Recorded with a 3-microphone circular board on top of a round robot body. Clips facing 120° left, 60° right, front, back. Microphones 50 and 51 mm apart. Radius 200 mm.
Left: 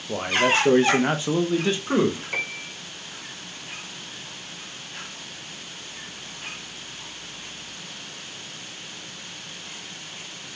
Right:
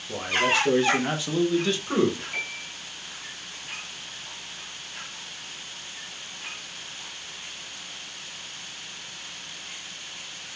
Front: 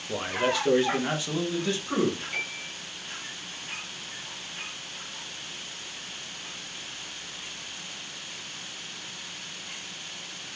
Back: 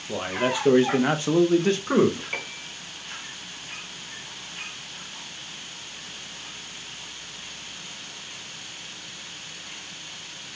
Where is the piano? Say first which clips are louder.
Left 3 dB, even; 130° left, 1.8 m.